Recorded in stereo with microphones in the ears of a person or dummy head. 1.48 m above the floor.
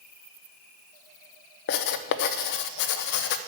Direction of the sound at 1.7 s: 65° left (ahead or behind).